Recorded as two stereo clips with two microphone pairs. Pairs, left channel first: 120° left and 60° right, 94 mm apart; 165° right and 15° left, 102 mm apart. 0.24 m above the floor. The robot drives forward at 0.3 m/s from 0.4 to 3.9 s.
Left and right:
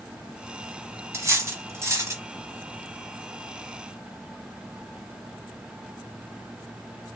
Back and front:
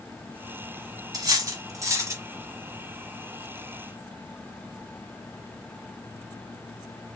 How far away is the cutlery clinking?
About 1.1 m.